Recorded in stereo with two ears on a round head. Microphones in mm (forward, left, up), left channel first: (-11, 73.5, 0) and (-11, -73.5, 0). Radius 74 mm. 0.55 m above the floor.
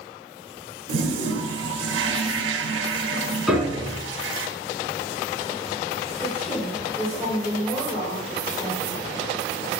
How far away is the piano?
About 1.3 m.